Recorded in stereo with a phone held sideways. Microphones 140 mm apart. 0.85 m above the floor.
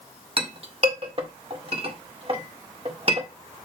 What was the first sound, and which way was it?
A clink, 45° right (ahead or behind).